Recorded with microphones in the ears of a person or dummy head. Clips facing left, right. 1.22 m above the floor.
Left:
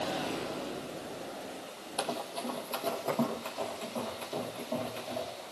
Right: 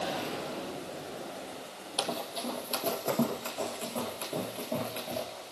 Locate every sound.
2.0 s running footsteps: 10° right (ahead or behind), 1.9 m; by 5.2 s 15° right (ahead or behind), 6 m